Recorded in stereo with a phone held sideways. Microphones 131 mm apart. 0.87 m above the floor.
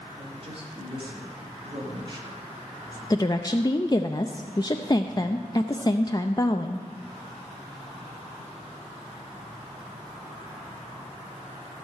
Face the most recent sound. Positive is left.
turn(degrees=30)  # may be behind; listen again after turning